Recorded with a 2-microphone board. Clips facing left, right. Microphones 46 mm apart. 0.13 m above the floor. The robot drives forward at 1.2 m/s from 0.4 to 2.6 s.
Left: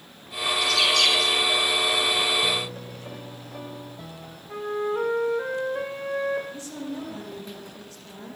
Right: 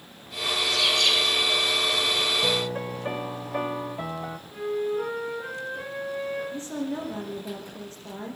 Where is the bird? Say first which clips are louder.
Left 2 dB; 80° left, 8.5 m; by 1.4 s 75° left (ahead or behind), 8.5 m.